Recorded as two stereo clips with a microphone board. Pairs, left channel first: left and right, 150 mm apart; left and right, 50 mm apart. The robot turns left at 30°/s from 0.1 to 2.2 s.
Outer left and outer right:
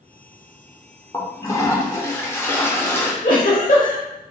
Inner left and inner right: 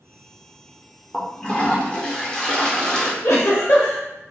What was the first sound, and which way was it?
A toilet flushing, 20° left (ahead or behind).